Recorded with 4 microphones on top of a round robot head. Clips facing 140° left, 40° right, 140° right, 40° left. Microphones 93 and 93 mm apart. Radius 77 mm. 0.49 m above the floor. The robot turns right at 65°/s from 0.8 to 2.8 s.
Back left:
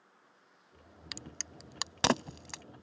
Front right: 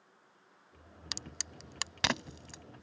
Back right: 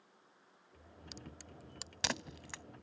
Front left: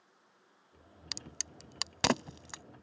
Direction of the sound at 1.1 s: 20° left.